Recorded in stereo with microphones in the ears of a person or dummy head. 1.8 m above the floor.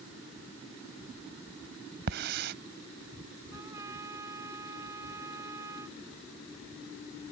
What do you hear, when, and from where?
2.1 s a hiss: 55° right (ahead or behind)
3.5 s a trumpet: 15° right (ahead or behind)